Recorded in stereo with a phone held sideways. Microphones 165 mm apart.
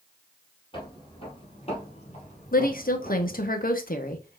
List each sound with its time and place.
0.7 s footsteps: 30° left (ahead or behind), 2.5 m; by 3.5 s 45° left (ahead or behind), 2 m
2.5 s a woman speaking: 60° left (ahead or behind), 1.0 m